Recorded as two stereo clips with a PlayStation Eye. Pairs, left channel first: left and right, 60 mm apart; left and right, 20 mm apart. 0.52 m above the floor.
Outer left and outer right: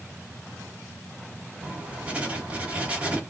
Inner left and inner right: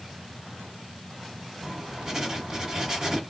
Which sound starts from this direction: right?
Writing, at 1.6 s.